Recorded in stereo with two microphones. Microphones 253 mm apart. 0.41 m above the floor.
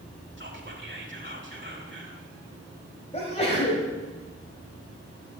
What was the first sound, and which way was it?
Whispering, 45° right (ahead or behind).